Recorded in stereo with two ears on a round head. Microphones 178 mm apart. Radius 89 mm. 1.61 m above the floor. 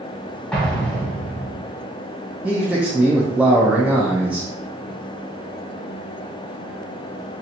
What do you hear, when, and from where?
0.5 s an explosion: 5° left (ahead or behind), 1.5 m
2.4 s a man speaking: 5° right (ahead or behind), 0.5 m